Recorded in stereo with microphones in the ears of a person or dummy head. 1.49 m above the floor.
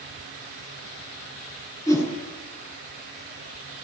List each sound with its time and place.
1.9 s a whoosh: 15° left (ahead or behind), 7 m